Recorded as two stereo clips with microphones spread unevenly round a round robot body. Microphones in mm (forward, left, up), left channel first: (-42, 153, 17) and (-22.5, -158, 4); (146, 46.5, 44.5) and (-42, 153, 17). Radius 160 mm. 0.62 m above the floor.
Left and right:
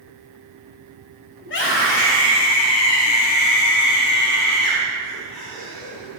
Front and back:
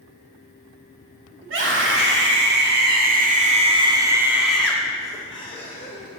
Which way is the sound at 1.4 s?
150° left.